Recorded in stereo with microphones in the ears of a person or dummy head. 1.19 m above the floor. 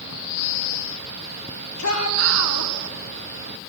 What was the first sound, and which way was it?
A shout, 85° left.